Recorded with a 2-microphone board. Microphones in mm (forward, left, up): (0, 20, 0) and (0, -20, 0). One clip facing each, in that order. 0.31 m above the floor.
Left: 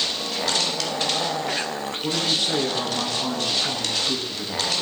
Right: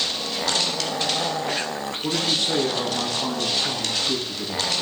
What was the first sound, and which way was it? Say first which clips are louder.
A woman speaking: even; 5° left (ahead or behind).